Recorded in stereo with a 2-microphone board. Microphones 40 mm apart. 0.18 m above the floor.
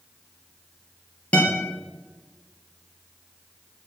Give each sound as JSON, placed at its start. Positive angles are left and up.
{"t": 1.3, "sound": "a guitar", "side_deg": 30, "distance_m": 3.0}